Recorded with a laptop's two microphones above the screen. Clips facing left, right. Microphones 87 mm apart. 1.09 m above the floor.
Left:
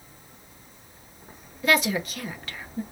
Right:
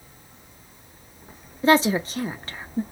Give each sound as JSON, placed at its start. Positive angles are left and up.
{"t": 1.6, "sound": "a woman speaking", "side_deg": -30, "distance_m": 0.6}